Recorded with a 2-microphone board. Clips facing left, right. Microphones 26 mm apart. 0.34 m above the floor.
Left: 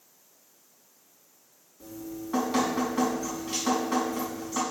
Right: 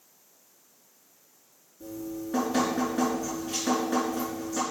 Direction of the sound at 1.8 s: 65° left (ahead or behind).